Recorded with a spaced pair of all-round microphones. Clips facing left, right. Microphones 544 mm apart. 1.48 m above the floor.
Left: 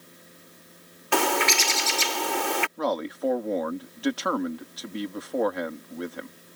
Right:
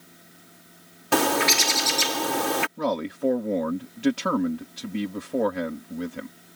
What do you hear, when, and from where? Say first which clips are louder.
0.0 s a fan: left 1 dB; 10° right (ahead or behind)
1.1 s a bird: right 3 dB; 65° right (ahead or behind)
2.8 s a man speaking: right 1 dB; 50° right (ahead or behind)